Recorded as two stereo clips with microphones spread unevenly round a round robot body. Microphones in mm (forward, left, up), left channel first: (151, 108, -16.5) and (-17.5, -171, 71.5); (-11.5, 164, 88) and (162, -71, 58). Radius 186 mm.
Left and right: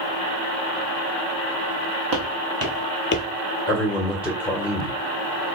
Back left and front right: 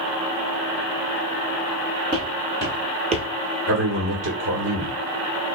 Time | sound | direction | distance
2.1 | footsteps | 125° right | 1.1 m
3.7 | a man speaking | 25° right | 1.9 m